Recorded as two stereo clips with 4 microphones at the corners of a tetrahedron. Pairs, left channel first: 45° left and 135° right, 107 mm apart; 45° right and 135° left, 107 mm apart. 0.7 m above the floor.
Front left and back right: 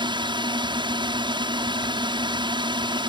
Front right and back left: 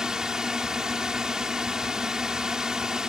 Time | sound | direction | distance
0.0 | a drone | 140° right | ?